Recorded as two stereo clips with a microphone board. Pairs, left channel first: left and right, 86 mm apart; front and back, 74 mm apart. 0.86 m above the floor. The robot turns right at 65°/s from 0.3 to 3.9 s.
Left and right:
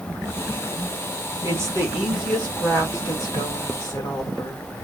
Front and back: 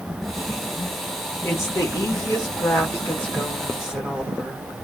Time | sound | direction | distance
1.4 | a woman speaking | 50° right | 1.5 m